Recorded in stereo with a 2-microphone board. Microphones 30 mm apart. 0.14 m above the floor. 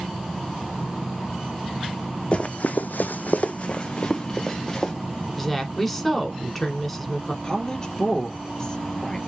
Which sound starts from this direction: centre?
A woman speaking, at 5.3 s.